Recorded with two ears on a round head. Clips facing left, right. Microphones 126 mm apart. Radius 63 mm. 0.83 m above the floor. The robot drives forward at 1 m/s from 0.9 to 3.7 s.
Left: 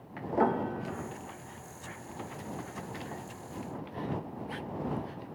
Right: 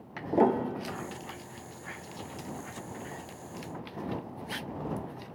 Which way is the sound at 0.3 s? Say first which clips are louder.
Right 3 dB; 30° right (ahead or behind).